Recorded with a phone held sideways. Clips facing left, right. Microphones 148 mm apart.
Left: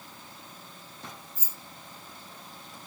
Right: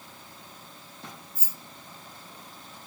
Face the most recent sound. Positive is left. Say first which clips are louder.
# right 1 dB
turn(degrees=-70)  # may be behind; listen again after turning